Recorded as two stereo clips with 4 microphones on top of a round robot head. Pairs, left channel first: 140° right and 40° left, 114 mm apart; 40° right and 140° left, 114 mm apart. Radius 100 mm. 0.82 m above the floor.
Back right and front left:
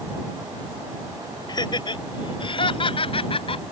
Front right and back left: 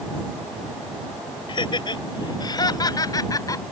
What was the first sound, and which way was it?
Laughter, 90° right.